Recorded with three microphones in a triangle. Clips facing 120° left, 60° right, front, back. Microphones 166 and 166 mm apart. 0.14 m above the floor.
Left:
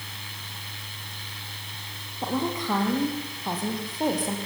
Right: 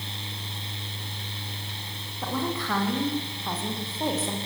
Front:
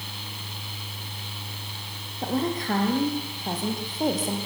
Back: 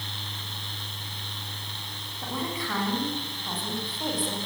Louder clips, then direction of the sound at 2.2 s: Left 2 dB, front 7 dB; 45° left.